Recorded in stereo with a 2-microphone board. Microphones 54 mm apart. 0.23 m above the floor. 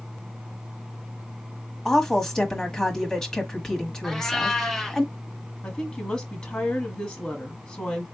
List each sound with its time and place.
1.9 s a woman speaking: 10° left (ahead or behind), 1.2 m
4.0 s a cat meowing: 5° left (ahead or behind), 0.9 m
5.6 s a woman speaking: 20° left (ahead or behind), 1.2 m